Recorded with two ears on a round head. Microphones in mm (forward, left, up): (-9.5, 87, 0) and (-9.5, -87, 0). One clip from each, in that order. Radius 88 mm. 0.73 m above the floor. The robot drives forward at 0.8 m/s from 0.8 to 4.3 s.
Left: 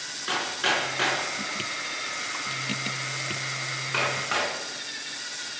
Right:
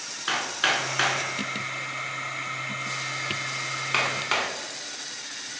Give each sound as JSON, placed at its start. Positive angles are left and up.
{"t": 0.3, "sound": "hammering", "side_deg": -45, "distance_m": 6.0}